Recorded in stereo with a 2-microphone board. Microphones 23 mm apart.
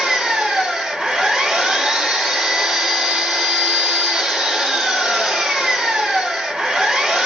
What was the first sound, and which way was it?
An engine running, 50° right (ahead or behind).